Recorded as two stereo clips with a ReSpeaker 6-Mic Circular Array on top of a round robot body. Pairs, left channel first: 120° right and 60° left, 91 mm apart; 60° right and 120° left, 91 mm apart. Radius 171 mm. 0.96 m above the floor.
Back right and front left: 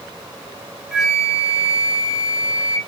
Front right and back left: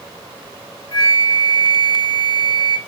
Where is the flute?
25° right, 1.0 m.